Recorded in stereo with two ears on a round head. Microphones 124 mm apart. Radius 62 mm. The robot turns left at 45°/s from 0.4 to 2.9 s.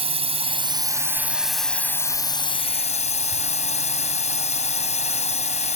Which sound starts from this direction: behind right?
A drone, at 0.0 s.